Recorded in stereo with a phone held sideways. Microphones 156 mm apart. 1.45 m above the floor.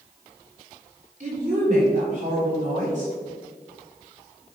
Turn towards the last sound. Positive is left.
turn(degrees=-50)  # may be behind; listen again after turning